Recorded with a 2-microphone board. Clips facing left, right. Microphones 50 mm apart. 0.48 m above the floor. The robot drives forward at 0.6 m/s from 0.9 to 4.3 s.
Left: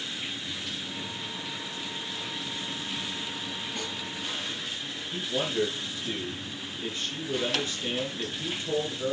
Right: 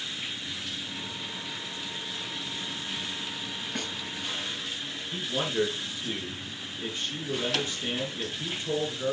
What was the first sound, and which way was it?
A snare drum, 65° right (ahead or behind).